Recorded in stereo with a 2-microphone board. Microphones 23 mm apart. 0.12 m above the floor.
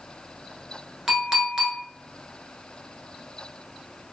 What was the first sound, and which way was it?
A clink, 15° right (ahead or behind).